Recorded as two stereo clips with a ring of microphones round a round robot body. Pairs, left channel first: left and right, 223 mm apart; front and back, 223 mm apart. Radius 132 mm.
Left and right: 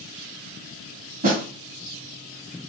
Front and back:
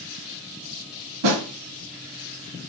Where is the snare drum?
150° right, 0.8 m.